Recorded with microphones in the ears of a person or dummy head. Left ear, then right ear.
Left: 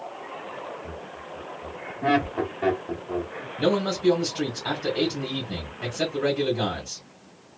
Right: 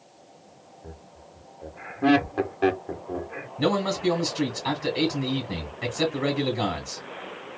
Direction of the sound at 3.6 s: 20° right (ahead or behind).